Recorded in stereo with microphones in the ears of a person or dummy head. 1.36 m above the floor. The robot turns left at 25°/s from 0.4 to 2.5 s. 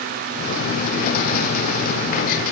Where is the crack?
No crack in this recording.